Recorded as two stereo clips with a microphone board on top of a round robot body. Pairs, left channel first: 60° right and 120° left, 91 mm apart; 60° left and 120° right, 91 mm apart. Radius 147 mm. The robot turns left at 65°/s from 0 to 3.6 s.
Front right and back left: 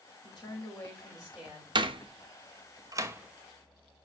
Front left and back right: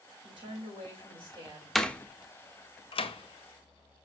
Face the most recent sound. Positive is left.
turn(degrees=30)